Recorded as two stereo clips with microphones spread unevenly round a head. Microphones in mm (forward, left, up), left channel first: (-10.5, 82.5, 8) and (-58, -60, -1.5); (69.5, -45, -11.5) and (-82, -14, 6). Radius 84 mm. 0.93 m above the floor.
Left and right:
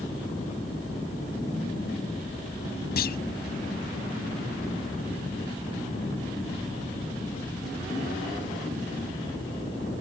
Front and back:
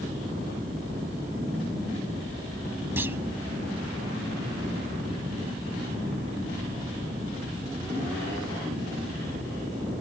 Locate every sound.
3.0 s a clunk: 90° left